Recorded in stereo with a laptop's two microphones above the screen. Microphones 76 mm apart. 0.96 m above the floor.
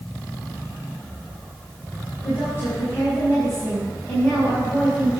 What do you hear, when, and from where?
2.2 s a woman speaking: 25° left (ahead or behind), 8 m